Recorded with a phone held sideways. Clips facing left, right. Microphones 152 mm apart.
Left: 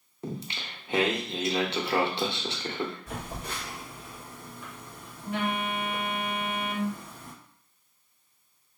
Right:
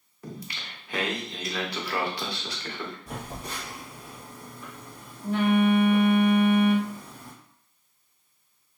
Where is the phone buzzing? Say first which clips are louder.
Even; 35° right (ahead or behind), 1.3 m.